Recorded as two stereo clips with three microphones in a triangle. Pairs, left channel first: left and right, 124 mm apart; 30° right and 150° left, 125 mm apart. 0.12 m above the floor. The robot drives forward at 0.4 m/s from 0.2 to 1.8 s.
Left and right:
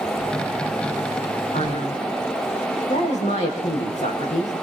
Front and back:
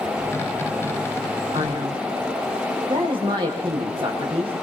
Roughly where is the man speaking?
Left.